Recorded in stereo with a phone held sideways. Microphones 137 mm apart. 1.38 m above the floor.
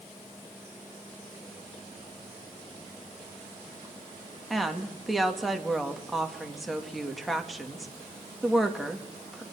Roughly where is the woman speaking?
Centre.